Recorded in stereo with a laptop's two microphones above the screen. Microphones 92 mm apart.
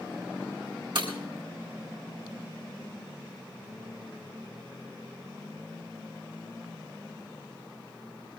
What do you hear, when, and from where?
0.9 s breaking glass: 60° right (ahead or behind), 3 m